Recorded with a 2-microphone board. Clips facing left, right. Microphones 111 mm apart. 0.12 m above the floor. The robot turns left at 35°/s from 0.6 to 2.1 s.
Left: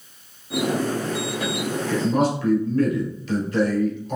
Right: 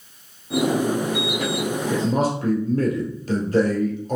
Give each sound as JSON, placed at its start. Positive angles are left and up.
{"t": 1.9, "sound": "a man speaking", "side_deg": -40, "distance_m": 1.8}